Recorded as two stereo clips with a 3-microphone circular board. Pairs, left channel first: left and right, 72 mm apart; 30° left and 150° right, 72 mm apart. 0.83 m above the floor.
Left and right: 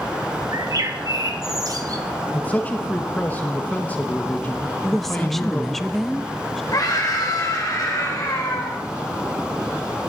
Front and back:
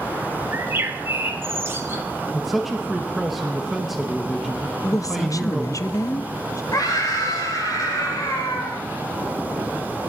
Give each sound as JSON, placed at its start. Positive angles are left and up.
{"t": 0.5, "sound": "a bird", "azimuth_deg": -100, "distance_m": 1.2}
{"t": 2.3, "sound": "a man speaking", "azimuth_deg": 120, "distance_m": 1.1}
{"t": 4.8, "sound": "a woman speaking", "azimuth_deg": 0, "distance_m": 0.6}
{"t": 6.7, "sound": "a scream", "azimuth_deg": 60, "distance_m": 4.0}